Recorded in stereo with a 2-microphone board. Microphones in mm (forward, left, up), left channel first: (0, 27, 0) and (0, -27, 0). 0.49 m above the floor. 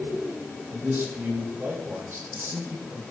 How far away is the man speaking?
About 4 m.